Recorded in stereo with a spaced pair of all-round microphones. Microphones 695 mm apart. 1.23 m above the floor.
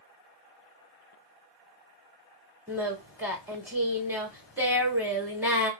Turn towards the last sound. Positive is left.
turn(degrees=-5)  # may be behind; listen again after turning